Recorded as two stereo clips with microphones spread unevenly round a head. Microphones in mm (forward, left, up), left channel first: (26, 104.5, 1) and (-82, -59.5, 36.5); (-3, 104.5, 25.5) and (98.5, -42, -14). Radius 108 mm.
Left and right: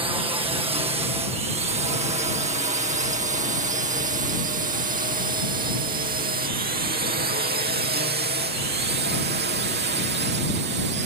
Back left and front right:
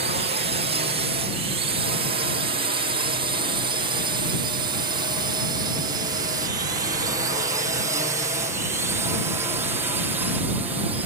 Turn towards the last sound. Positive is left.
turn(degrees=-120)